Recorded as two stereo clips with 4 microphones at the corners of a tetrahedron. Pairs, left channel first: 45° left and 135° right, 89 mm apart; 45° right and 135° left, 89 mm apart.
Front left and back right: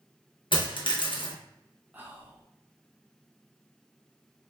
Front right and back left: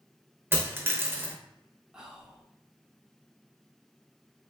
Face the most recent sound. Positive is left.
turn(degrees=-155)